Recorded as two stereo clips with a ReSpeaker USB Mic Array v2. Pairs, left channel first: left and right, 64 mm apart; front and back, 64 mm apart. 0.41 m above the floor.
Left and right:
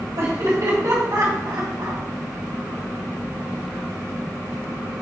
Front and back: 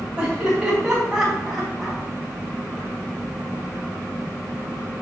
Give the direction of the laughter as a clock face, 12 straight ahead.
4 o'clock.